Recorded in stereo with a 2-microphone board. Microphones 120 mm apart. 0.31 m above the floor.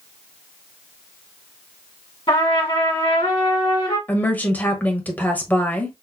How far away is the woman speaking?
About 1.1 m.